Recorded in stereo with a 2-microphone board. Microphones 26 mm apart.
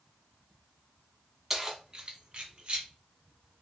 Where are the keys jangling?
10° right (ahead or behind), 0.8 m; by 2.9 s 40° right (ahead or behind), 1.2 m.